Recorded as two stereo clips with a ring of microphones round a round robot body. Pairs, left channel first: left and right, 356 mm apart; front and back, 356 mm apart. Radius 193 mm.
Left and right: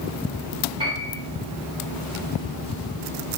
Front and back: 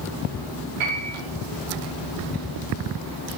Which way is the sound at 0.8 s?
170° right.